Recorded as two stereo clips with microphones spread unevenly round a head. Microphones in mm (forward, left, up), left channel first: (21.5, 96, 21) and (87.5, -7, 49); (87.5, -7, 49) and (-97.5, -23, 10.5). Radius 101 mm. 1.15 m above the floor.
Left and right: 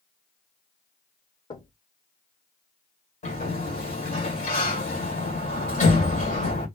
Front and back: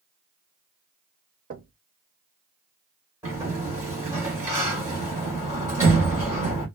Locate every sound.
1.5 s knocking: 155° left, 0.7 m
3.2 s a sliding door: 105° left, 1.9 m